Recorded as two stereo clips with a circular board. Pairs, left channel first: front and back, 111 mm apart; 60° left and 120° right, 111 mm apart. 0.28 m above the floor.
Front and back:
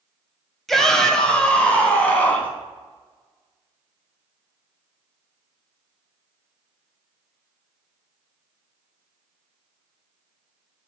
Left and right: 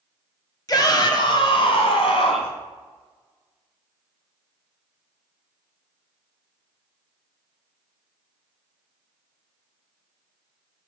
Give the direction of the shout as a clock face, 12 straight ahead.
9 o'clock.